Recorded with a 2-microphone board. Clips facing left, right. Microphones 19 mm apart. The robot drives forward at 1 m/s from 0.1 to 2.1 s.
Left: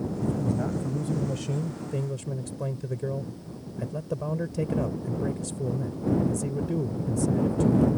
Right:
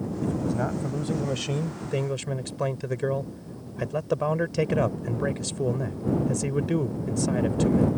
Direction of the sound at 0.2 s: 25° right (ahead or behind).